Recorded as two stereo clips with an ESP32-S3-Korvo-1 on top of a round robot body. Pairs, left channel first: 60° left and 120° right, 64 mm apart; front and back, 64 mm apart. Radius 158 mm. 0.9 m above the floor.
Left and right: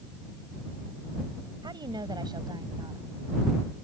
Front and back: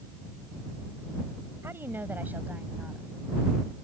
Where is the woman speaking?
125° right; by 3.1 s 110° right.